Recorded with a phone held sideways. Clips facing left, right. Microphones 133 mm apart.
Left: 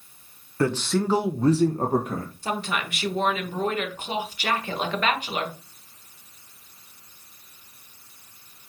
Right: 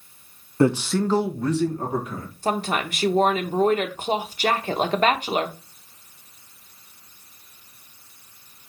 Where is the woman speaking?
40° right (ahead or behind), 1.1 m.